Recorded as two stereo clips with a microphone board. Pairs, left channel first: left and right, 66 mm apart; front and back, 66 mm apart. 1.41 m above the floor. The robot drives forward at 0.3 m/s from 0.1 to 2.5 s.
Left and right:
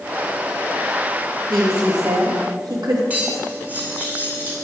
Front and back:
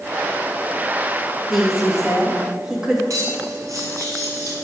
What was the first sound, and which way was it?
A woman speaking, 95° right.